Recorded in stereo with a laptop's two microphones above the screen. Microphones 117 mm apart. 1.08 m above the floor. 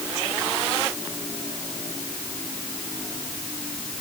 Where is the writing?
I don't hear writing.